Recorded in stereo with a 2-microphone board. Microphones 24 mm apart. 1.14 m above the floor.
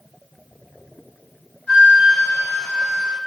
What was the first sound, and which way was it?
A flute, 60° left (ahead or behind).